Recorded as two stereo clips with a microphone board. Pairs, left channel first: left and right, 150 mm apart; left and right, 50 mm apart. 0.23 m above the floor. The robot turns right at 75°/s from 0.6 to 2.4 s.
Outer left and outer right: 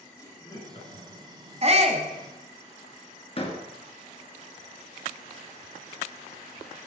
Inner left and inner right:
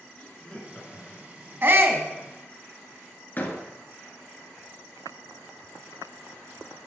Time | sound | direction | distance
0.2 | laughter | 25° left (ahead or behind) | 3 m
1.6 | a shout | 110° right | 1.4 m
3.4 | a door slam | 40° left (ahead or behind) | 2.5 m